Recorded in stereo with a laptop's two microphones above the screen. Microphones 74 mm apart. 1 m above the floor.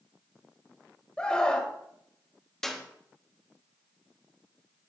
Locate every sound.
1.2 s a scream: 15° left (ahead or behind), 1.2 m
2.6 s a clap: 5° left (ahead or behind), 1.1 m